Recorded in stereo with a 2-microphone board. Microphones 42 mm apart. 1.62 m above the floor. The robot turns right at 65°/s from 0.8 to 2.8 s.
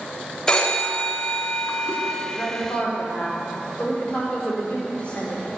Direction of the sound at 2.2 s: 115° left.